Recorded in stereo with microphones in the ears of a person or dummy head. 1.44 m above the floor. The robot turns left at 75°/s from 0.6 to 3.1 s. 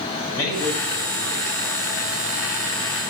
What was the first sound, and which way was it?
A man speaking, 20° left (ahead or behind).